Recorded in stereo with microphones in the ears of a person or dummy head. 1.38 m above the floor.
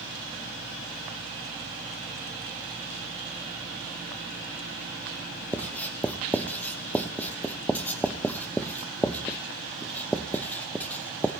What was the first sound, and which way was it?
Writing, 5° left (ahead or behind).